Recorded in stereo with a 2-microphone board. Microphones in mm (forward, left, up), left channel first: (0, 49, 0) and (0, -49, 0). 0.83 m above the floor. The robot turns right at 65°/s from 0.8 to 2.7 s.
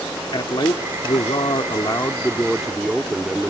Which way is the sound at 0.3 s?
65° left.